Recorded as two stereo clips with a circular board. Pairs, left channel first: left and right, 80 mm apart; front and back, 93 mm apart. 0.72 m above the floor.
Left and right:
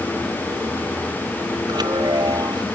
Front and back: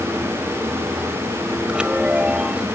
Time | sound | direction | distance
1.7 | a chime | 100° right | ?